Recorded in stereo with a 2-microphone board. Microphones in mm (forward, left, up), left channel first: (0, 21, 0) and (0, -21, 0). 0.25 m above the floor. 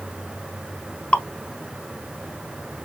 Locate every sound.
1.1 s dripping: 35° left (ahead or behind), 0.6 m